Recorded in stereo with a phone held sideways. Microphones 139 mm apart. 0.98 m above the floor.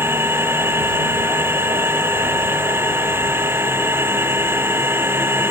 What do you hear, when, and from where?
0.0 s a machine running: 15° right (ahead or behind)